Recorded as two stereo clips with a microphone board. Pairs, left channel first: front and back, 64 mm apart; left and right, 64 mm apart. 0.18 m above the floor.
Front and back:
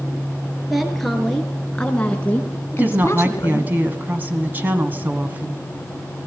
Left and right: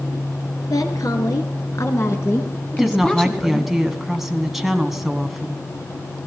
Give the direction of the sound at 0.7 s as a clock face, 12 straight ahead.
9 o'clock.